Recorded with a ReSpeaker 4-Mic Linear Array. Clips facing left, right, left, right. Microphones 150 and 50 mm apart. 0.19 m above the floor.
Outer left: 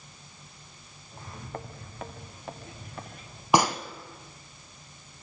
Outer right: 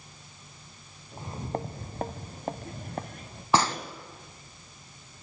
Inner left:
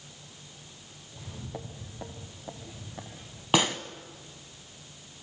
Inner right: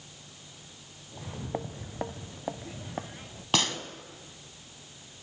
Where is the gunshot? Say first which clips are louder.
Outer left 2 dB, inner left 4 dB; 15° left (ahead or behind), 1.6 m.